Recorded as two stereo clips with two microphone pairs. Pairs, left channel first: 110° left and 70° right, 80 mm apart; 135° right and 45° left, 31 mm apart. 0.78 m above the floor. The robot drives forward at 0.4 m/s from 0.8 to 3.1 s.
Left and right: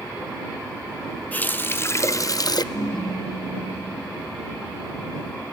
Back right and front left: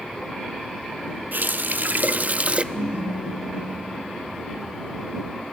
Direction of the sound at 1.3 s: 40° left.